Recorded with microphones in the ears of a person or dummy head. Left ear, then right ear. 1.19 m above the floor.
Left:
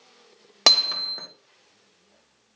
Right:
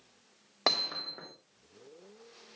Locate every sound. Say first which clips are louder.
0.7 s hammering: left 12 dB; 70° left (ahead or behind), 1.5 m